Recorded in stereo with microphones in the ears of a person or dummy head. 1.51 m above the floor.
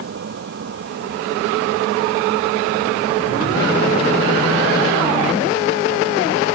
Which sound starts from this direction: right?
A vehicle, at 0.0 s.